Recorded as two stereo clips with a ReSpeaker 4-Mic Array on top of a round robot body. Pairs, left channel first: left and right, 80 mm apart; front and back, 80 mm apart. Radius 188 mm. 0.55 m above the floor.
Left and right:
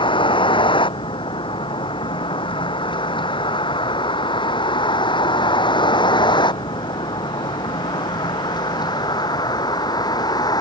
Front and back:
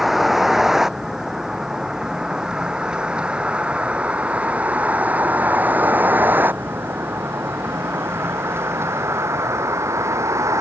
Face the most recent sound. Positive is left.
turn(degrees=125)